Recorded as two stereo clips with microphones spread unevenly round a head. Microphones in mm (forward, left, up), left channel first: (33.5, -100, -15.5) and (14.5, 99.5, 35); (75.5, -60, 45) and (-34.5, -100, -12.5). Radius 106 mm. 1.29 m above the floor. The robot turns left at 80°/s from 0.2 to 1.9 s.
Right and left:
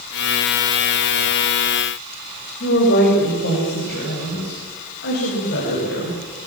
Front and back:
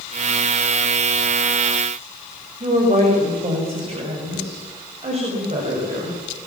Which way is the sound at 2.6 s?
130° right.